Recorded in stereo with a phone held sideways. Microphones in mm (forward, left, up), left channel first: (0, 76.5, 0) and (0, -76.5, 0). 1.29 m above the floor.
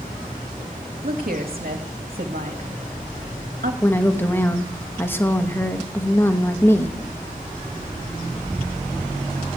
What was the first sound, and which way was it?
A woman speaking, 75° right (ahead or behind).